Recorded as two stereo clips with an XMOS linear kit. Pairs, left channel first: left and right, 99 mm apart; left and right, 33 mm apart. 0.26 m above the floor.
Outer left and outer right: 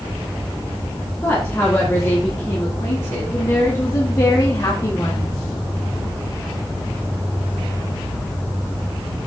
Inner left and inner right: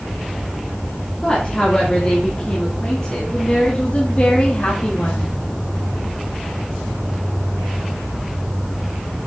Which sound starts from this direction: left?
A woman speaking, at 1.2 s.